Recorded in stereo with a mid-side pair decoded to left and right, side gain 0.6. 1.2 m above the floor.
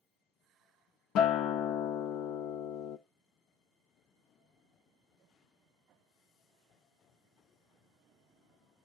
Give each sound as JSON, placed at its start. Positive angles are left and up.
{"t": 1.1, "sound": "a guitar", "azimuth_deg": 65, "distance_m": 0.6}